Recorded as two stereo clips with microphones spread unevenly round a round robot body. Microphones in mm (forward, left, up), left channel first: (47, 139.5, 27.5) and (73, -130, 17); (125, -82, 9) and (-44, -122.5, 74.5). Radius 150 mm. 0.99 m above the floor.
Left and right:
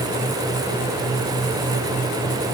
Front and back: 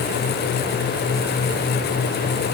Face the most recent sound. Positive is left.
No sound to turn to.